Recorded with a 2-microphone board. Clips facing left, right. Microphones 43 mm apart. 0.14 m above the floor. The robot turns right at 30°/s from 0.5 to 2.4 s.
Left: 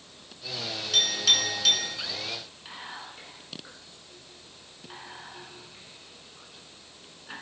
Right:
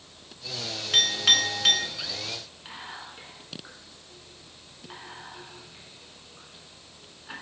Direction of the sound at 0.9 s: 40° right (ahead or behind).